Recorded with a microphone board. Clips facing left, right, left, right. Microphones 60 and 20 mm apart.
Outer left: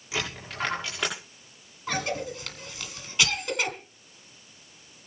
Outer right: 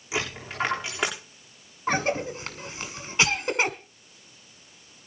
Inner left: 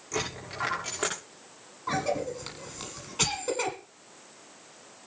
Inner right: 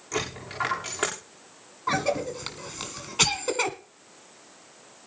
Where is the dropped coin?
20° right (ahead or behind), 8 m.